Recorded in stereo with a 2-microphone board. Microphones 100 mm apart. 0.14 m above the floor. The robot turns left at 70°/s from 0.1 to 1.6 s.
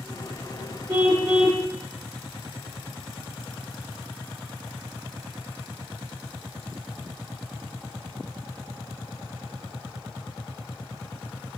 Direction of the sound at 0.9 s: 125° right.